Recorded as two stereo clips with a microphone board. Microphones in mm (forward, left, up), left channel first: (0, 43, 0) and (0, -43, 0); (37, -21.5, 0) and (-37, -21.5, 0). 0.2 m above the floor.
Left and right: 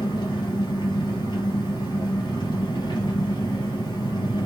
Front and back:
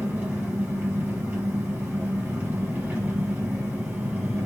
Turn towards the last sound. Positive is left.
turn(degrees=120)